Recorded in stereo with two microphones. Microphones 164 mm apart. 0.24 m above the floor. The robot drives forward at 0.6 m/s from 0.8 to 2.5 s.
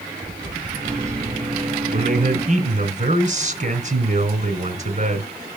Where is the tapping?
50° right (ahead or behind), 4 m; by 1.4 s 45° right (ahead or behind), 4.5 m.